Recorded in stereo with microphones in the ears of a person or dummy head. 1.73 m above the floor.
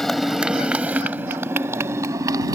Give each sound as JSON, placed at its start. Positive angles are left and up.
{"t": 0.0, "sound": "a motorcycle", "side_deg": 0}